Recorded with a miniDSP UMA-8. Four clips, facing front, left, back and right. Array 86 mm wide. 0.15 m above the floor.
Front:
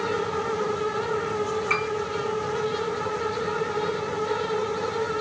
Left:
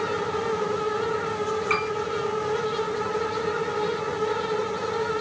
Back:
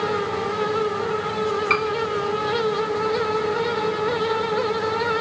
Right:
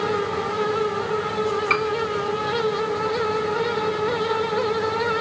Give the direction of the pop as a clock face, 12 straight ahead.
No pop in this recording.